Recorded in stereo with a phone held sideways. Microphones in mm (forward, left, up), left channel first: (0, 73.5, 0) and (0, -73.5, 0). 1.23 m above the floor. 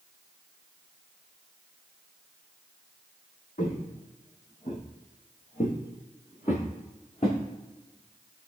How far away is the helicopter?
I don't hear a helicopter.